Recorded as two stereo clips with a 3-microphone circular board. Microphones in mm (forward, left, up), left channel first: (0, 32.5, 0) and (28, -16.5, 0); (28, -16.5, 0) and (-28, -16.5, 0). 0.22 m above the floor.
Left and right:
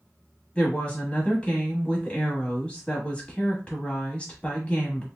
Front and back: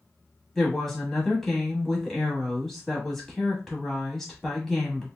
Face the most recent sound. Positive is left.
turn(degrees=75)